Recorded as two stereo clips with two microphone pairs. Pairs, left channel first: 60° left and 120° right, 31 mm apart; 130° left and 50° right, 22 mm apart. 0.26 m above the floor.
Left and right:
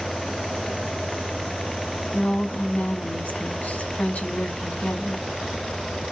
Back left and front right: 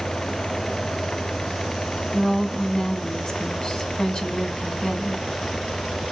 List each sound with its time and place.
2.1 s a woman speaking: 85° left, 1.8 m